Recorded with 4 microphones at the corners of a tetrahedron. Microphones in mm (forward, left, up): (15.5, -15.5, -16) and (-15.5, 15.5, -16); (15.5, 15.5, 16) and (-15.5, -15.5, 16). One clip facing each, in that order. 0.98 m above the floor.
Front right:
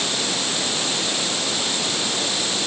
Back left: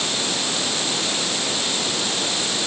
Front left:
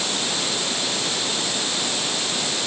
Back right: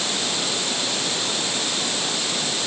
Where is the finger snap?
No finger snap in this recording.